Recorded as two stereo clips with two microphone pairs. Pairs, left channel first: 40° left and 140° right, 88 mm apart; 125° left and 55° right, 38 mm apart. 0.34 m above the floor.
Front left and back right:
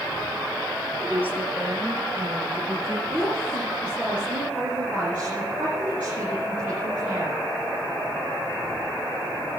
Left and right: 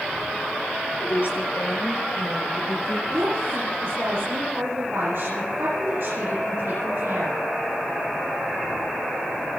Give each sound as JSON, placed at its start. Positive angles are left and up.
{"t": 1.0, "sound": "a woman speaking", "azimuth_deg": 145, "distance_m": 6.5}
{"t": 3.1, "sound": "a woman speaking", "azimuth_deg": -65, "distance_m": 8.0}